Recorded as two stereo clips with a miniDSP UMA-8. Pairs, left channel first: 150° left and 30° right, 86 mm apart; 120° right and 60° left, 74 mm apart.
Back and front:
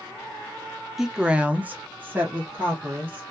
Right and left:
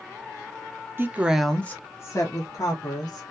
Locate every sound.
1.0 s a woman speaking: 55° left, 0.5 m; by 3.2 s 100° right, 1.3 m